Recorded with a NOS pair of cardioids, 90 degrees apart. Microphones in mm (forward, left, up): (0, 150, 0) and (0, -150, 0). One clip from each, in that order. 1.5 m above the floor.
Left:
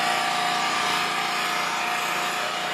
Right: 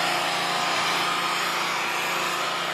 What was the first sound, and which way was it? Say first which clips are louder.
An engine running: left 1 dB; 45° left.